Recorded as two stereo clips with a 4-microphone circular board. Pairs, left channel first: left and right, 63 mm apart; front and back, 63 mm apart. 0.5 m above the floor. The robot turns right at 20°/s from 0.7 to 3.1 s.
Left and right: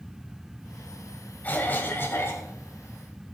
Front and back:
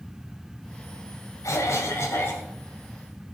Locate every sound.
1.4 s a cough: 25° left, 2 m; by 2.5 s 50° left, 2 m